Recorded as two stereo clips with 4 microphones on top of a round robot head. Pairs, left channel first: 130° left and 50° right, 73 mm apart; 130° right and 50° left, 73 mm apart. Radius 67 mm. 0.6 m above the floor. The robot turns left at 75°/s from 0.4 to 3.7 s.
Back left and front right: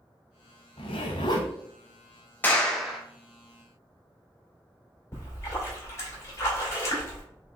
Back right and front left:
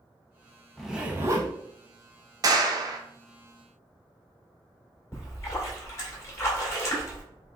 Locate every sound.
0.8 s a zipper: 145° left, 0.6 m; by 1.5 s 90° left, 0.6 m
2.4 s a clap: 70° left, 1.0 m; by 3.0 s 25° left, 1.0 m
5.1 s a splash: straight behind, 2 m